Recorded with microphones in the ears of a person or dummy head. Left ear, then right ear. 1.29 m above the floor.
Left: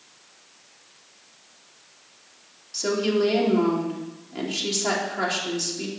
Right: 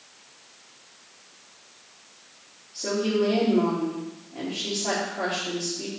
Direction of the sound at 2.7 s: 65° left (ahead or behind).